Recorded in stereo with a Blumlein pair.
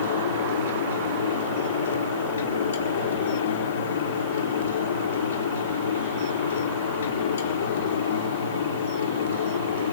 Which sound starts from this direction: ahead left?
A fan, at 0.0 s.